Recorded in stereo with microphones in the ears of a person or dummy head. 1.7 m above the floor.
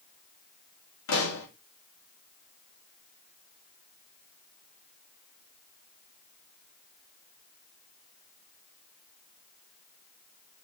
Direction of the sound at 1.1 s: 80° left.